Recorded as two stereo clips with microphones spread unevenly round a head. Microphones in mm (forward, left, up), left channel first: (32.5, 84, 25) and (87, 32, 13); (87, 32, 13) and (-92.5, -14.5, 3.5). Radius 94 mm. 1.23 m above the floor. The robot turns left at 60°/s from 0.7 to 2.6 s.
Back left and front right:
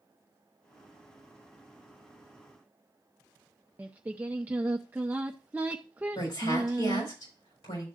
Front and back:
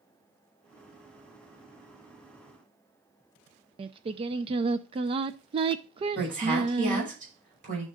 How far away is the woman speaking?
About 6 m.